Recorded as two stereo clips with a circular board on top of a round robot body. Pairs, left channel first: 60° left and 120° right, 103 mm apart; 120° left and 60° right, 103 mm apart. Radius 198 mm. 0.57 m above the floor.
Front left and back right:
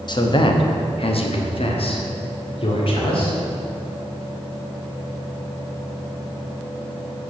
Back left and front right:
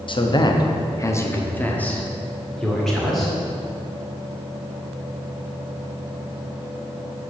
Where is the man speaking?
95° left, 1.1 m; by 3.4 s 30° left, 2.5 m.